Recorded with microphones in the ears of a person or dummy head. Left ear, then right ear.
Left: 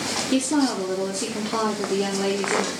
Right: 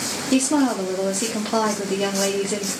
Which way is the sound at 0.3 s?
35° right (ahead or behind).